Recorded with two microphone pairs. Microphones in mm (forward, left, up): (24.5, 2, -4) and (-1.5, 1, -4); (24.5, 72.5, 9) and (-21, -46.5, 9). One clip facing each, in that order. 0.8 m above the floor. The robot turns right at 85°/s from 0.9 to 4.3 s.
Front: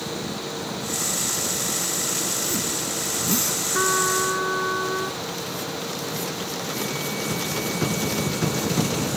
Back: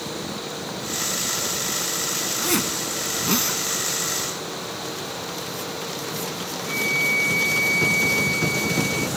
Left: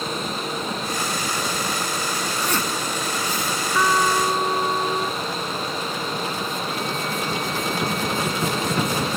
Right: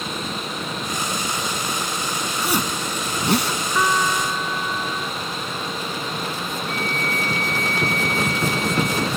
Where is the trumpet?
25° right; by 5.2 s 25° left.